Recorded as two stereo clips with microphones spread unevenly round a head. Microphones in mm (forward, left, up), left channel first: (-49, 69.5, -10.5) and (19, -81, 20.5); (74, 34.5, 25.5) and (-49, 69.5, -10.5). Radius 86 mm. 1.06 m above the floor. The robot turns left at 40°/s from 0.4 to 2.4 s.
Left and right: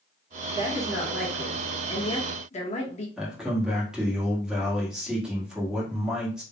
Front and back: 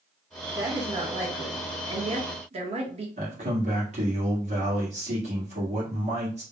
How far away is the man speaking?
About 1.8 m.